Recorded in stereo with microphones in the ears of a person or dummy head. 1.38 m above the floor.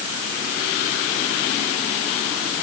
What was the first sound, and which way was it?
Only background noise.